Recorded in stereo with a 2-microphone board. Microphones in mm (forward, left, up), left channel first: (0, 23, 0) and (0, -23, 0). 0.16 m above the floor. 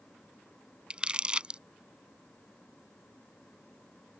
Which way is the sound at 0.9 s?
20° right (ahead or behind).